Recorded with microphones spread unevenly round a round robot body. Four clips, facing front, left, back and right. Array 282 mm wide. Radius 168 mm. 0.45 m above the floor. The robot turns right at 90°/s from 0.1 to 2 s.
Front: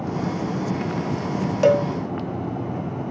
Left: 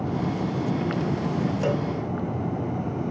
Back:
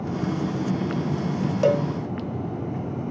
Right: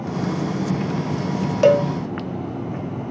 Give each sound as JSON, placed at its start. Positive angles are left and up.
{"t": 1.6, "sound": "a cowbell", "azimuth_deg": -60, "distance_m": 0.8}